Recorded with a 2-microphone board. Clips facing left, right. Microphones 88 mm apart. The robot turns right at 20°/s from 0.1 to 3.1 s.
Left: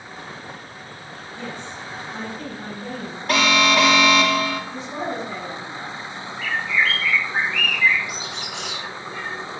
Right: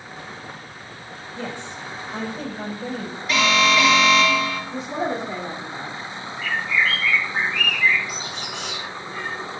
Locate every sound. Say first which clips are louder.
1.4 s a woman speaking: right 2 dB; 95° right, 4 m; by 3.2 s 60° right, 4 m
3.3 s an alarm: left 1 dB; 50° left (ahead or behind), 1.2 m
4.7 s a woman speaking: right 3 dB; 35° right (ahead or behind), 1.4 m
6.4 s a bird: even; 80° left, 2 m